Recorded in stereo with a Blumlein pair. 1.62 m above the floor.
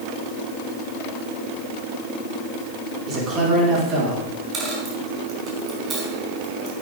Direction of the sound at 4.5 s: 25° right.